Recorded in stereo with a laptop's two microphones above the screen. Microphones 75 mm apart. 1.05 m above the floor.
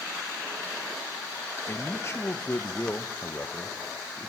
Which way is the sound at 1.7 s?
35° left (ahead or behind).